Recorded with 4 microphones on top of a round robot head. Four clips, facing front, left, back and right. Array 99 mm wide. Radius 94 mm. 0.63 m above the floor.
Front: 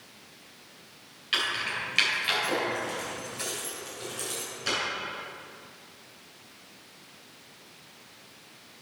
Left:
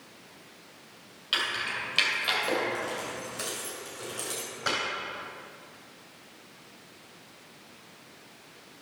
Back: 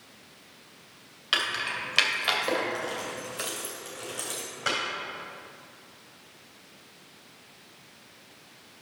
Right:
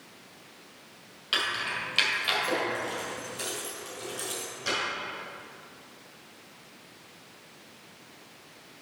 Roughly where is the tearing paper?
No tearing paper in this recording.